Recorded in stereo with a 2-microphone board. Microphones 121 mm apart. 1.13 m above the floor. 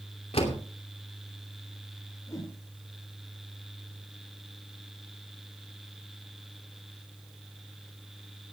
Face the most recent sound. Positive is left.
turn(degrees=30)  # may be behind; listen again after turning